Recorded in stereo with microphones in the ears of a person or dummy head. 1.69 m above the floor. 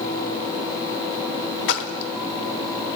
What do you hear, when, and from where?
1.7 s a splash: 65° left (ahead or behind), 0.6 m